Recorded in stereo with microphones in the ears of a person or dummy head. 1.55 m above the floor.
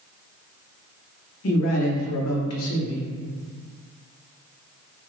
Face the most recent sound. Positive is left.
turn(degrees=80)